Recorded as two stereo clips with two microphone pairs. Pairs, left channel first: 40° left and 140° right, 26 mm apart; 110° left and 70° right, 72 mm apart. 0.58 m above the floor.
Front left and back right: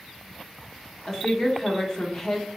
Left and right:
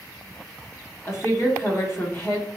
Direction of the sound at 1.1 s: 95° left.